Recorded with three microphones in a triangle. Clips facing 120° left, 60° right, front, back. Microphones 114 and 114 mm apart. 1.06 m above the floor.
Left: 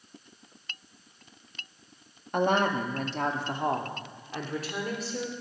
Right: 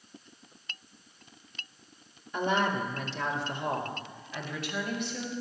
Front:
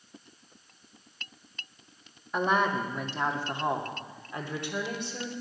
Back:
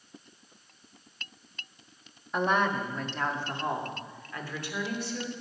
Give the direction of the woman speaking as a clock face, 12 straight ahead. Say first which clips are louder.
Left 3 dB, even; 9 o'clock.